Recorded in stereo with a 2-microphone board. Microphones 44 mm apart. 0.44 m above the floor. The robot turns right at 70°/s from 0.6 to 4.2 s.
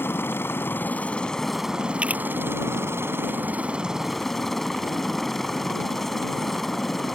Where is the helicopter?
115° left; by 7.2 s 5° left.